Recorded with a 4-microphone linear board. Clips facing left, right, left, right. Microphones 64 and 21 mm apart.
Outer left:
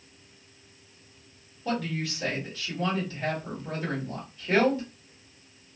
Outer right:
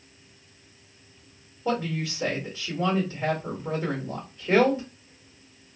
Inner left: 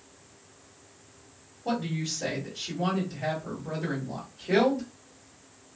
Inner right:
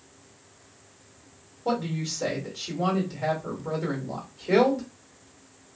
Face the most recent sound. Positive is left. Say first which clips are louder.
# outer right 3 dB, inner right 2 dB
turn(degrees=-30)  # may be behind; listen again after turning